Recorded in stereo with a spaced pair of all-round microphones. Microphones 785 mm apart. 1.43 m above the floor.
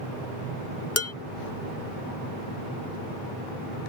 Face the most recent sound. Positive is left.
turn(degrees=20)  # may be behind; listen again after turning